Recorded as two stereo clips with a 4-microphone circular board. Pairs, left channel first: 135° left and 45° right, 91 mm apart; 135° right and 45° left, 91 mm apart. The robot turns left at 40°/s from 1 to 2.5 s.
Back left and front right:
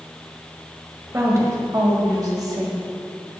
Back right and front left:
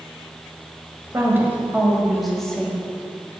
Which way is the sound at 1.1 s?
Straight ahead.